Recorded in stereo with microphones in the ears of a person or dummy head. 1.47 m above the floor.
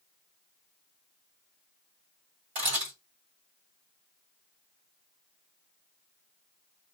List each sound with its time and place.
2.5 s a camera shutter: 50° right (ahead or behind), 1.8 m